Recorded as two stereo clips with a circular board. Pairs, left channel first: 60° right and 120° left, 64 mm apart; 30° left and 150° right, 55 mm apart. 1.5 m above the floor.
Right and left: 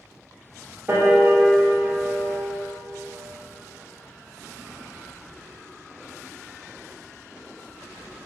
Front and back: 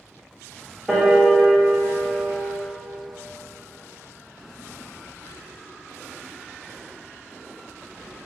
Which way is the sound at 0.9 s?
130° left.